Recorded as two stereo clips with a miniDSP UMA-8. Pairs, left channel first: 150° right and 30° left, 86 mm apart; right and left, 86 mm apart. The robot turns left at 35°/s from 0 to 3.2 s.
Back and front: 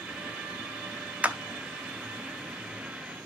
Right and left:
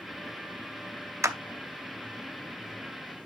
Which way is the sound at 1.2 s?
90° left.